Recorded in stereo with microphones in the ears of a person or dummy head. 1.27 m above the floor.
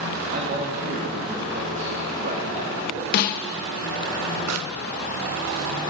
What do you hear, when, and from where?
0.3 s a man speaking: 45° right (ahead or behind), 3 m
3.1 s a snare drum: 50° left (ahead or behind), 1.0 m
4.5 s a pop: 75° right (ahead or behind), 0.9 m